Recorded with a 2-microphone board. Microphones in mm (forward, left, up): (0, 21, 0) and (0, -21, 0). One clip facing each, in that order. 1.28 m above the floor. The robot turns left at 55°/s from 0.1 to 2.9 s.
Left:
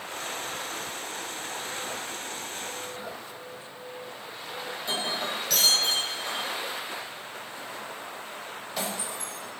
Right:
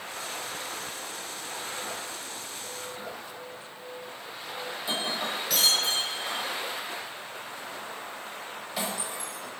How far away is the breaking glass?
About 4 m.